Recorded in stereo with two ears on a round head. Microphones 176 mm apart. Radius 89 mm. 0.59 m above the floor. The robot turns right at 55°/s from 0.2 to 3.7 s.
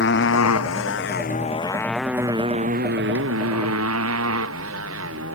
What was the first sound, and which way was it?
A motorcycle, 55° left (ahead or behind).